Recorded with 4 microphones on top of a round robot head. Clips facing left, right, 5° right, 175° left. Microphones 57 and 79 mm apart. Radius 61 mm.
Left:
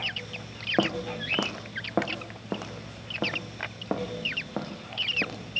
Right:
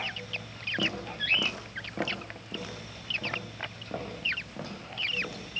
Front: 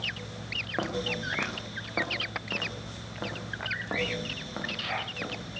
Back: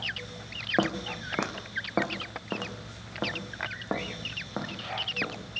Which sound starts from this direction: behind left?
Footsteps, at 0.8 s.